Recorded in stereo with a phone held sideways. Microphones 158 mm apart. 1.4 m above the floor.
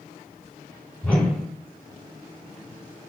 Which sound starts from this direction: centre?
A whoosh, at 1.0 s.